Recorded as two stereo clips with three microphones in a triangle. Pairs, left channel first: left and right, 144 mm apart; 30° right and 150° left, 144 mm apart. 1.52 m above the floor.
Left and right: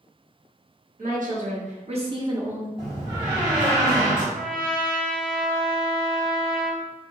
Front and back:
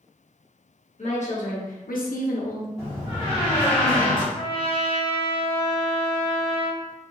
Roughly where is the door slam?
Behind right.